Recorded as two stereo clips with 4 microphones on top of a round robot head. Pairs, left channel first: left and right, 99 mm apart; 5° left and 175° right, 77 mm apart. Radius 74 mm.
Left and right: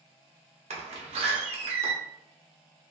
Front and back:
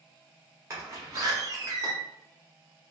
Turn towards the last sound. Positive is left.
turn(degrees=-110)